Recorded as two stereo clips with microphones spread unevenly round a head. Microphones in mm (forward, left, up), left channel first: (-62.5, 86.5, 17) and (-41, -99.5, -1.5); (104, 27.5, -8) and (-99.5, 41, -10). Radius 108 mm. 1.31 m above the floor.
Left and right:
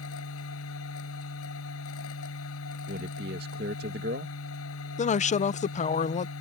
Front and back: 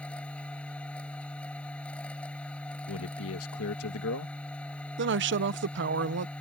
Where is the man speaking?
35° right.